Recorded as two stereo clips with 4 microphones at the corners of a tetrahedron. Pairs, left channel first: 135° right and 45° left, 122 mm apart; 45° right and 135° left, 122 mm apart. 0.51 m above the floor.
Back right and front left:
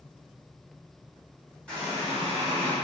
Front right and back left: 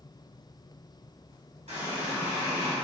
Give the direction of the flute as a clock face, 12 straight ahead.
No flute in this recording.